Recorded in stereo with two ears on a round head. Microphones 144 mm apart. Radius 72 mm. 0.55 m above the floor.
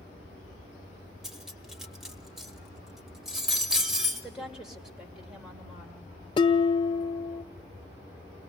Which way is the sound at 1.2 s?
5° right (ahead or behind).